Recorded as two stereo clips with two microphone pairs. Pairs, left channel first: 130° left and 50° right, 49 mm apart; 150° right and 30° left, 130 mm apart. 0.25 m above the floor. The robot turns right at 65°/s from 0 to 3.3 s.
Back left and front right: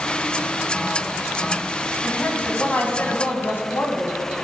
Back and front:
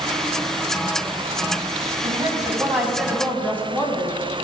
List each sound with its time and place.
2.0 s a woman speaking: 50° left, 2 m; by 4.2 s 130° left, 2 m